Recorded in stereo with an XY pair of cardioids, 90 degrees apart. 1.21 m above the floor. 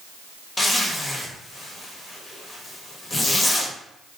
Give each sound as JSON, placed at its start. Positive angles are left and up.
{"t": 0.6, "sound": "a zipper", "azimuth_deg": 25, "distance_m": 1.1}